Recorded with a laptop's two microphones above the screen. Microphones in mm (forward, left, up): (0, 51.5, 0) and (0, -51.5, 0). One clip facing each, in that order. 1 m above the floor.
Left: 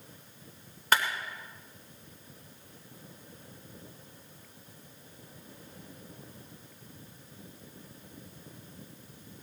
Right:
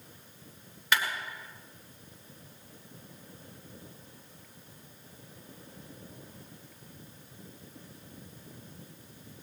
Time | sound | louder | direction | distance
0.9 | a clap | left 2 dB | 40° left (ahead or behind) | 3.5 m